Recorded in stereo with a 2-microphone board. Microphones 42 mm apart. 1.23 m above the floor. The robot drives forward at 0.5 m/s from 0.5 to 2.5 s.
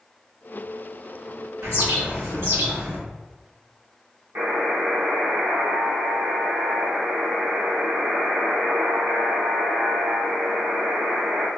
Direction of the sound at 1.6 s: 85° right.